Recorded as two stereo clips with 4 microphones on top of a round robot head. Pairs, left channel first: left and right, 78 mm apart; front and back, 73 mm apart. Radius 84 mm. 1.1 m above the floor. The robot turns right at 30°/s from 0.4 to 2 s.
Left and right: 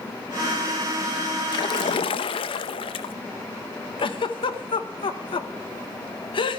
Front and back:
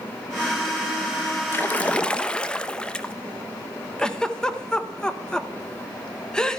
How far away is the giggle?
About 1.1 m.